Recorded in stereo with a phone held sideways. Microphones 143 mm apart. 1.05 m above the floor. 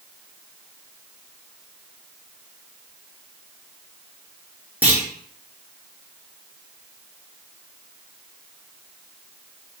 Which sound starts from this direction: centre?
A clunk, at 4.8 s.